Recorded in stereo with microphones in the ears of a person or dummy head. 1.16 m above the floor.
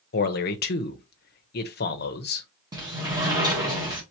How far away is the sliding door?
About 1.4 m.